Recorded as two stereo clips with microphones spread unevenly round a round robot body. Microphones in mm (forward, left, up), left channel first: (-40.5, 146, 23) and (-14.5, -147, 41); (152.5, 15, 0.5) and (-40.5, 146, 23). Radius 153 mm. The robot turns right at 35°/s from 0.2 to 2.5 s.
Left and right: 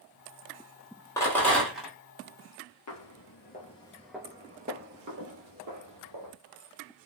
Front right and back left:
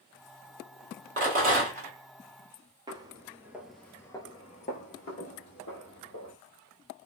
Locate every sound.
1.2 s a rattle: 160° left, 1.2 m; by 1.9 s 175° right, 1.2 m
2.9 s footsteps: 90° left, 0.8 m; by 6.3 s 85° right, 1.3 m